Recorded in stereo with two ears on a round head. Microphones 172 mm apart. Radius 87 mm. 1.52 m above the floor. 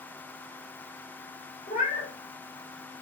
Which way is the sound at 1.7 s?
40° left (ahead or behind).